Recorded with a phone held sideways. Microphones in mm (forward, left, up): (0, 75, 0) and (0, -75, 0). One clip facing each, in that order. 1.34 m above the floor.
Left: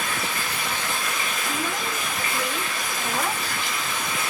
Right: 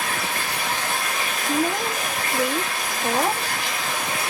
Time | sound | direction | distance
0.0 | running water | 70° right (ahead or behind) | 3.5 m
1.4 | a woman speaking | 40° right (ahead or behind) | 0.8 m